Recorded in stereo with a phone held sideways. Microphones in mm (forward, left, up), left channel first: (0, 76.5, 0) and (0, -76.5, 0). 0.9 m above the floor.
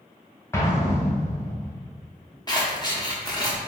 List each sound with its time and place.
0.5 s an explosion: 20° left (ahead or behind), 0.9 m
2.5 s scissors: 25° left (ahead or behind), 1.0 m